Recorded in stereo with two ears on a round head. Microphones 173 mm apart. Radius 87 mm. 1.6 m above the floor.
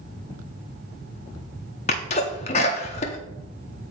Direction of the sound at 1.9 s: 35° left (ahead or behind).